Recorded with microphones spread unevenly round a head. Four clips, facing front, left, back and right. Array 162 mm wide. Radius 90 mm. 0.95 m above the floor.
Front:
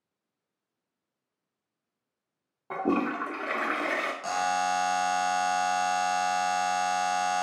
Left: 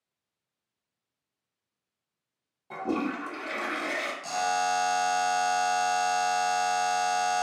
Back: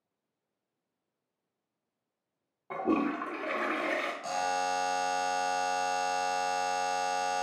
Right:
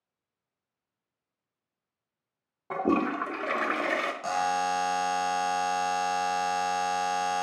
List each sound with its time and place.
2.7 s a toilet flushing: 35° right, 0.6 m
4.2 s a buzzer: 30° right, 0.8 m